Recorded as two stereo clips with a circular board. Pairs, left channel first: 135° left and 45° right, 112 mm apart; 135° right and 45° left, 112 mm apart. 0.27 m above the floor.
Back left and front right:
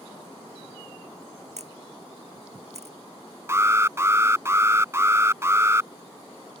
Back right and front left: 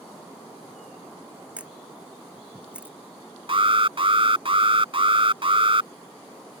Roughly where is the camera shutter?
Ahead right.